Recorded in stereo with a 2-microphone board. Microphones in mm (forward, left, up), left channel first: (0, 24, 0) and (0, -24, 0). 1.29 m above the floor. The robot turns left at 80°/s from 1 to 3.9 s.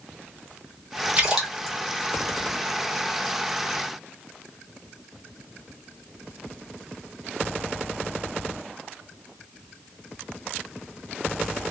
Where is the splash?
25° right (ahead or behind), 1.5 m; by 1.8 s 20° left (ahead or behind), 1.5 m.